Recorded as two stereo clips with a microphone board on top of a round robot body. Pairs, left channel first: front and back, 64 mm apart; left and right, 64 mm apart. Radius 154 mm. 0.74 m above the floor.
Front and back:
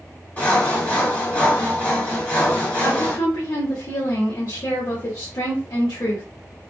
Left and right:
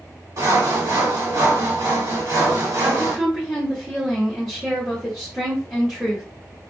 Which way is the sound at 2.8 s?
5° right.